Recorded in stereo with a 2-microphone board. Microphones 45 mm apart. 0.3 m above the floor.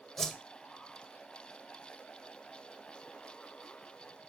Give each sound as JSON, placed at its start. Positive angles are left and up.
{"t": 0.2, "sound": "a whoosh", "side_deg": 15, "distance_m": 1.3}